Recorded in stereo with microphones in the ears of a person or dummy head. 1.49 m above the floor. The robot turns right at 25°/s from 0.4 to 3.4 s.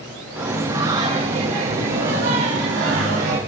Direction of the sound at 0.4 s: 170° right.